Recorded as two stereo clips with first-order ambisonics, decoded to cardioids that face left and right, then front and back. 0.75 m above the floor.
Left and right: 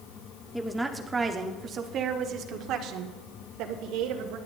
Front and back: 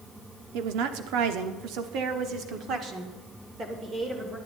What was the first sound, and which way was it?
A woman speaking, 175° left.